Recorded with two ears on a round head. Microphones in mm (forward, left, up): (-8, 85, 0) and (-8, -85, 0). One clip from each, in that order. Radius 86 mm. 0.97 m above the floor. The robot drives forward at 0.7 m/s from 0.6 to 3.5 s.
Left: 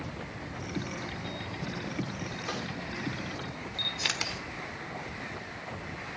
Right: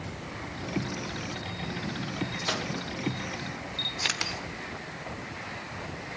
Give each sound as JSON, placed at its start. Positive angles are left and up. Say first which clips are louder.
{"t": 2.4, "sound": "a microwave", "louder": "right 6 dB", "side_deg": -70, "distance_m": 1.6}
{"t": 3.8, "sound": "a camera shutter", "louder": "right 1 dB", "side_deg": -5, "distance_m": 1.3}